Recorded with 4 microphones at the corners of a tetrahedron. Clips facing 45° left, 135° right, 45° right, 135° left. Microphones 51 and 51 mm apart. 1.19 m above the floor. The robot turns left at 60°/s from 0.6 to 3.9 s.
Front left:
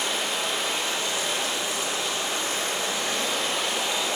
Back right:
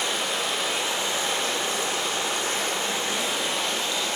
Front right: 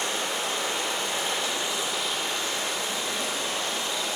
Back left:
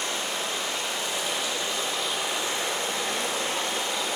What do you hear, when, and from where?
0.0 s running water: 45° right, 1.4 m; by 4.2 s 115° left, 1.4 m